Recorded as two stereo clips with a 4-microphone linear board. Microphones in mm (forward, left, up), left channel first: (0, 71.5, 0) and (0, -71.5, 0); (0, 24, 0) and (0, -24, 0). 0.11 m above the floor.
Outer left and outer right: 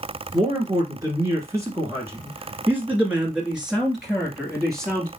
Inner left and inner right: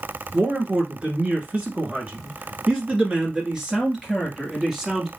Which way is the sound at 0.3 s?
30° right (ahead or behind).